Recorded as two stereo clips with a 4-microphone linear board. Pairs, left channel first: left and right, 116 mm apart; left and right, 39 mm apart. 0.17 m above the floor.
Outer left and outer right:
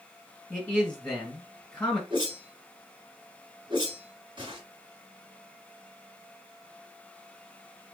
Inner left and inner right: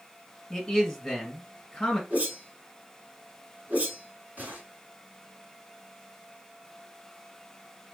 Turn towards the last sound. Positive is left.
turn(degrees=-40)  # may be behind; listen again after turning